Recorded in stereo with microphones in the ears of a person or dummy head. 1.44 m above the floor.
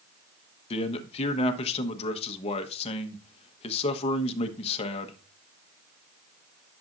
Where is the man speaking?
35° left (ahead or behind), 1.2 m.